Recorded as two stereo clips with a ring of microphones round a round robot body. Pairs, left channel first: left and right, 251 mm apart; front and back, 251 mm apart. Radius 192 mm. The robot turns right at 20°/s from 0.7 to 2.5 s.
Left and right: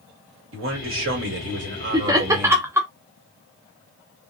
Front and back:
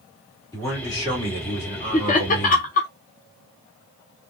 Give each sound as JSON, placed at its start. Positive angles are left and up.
{"t": 0.5, "sound": "a man speaking", "azimuth_deg": -75, "distance_m": 1.4}
{"t": 1.9, "sound": "laughter", "azimuth_deg": -30, "distance_m": 0.6}